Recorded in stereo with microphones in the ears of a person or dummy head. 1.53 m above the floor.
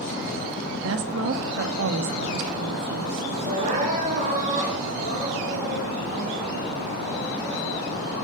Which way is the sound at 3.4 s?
45° right (ahead or behind).